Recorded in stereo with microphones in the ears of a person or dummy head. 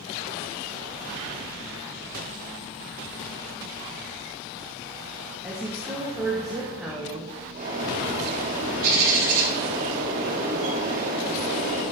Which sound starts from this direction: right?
A bird, at 7.5 s.